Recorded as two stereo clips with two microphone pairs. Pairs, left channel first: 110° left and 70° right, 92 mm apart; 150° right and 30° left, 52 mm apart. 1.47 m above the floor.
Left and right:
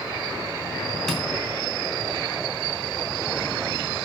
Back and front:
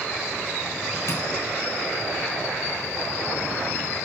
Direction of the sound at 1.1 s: 165° right.